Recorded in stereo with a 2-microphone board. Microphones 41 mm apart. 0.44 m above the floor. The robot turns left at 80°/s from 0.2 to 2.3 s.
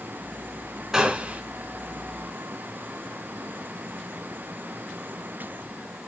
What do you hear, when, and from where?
0.9 s a gunshot: 25° right, 1.9 m; by 1.4 s 65° right, 1.9 m